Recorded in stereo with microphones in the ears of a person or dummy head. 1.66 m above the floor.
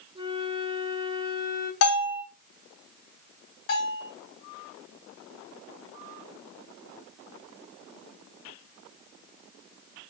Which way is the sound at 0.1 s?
20° right (ahead or behind).